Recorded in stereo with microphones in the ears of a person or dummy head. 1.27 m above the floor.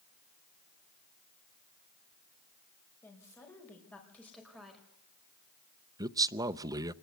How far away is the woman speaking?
About 5.5 m.